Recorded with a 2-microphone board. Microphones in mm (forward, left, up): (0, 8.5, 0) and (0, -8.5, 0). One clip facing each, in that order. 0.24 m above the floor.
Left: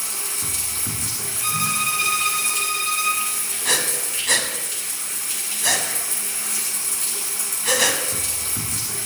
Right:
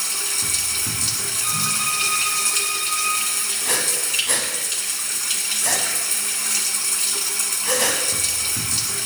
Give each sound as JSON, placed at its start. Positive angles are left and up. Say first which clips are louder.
{"t": 0.0, "sound": "running water", "louder": "right 4 dB", "side_deg": -60, "distance_m": 1.0}
{"t": 1.4, "sound": "a violin", "louder": "left 2 dB", "side_deg": 20, "distance_m": 3.0}
{"t": 3.6, "sound": "breathing", "louder": "left 2 dB", "side_deg": 50, "distance_m": 1.4}